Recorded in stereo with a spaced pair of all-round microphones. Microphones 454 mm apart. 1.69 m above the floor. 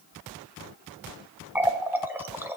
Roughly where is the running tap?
Centre.